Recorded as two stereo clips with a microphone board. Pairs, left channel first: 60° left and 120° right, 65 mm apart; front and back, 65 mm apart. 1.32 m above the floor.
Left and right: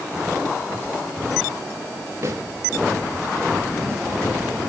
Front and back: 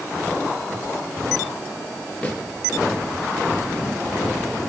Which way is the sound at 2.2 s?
75° right.